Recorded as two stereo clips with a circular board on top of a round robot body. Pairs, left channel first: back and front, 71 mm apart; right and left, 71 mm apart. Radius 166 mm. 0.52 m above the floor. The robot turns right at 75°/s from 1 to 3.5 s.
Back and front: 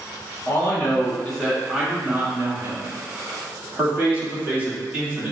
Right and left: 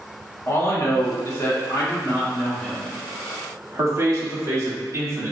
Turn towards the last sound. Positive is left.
turn(degrees=60)